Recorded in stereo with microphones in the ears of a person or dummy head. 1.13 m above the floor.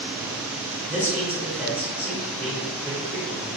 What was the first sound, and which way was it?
A man speaking, 5° right (ahead or behind).